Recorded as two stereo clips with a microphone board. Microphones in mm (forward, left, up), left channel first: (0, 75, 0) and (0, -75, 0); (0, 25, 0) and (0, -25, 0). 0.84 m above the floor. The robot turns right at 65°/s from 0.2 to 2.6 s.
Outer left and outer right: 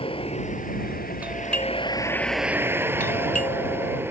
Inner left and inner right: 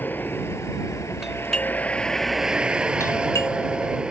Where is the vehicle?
40° left; by 4.1 s 165° right.